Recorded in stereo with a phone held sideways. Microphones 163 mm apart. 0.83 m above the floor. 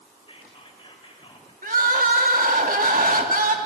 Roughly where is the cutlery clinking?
I don't hear cutlery clinking.